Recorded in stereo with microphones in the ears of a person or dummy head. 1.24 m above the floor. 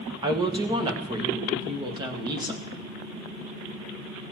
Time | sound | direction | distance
0.2 | a woman speaking | 25° right (ahead or behind) | 1.1 m